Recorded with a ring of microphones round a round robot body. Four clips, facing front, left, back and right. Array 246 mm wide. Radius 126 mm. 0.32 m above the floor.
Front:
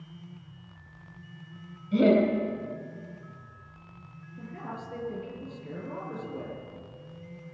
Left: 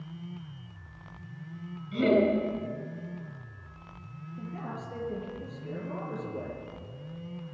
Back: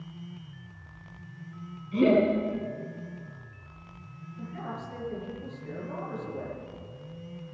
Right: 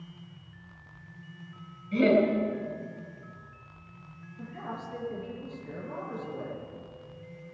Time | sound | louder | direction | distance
1.9 | laughter | right 1 dB, even | 20° right | 4.5 m
4.4 | a man speaking | even, back 1 dB | 55° left | 5.5 m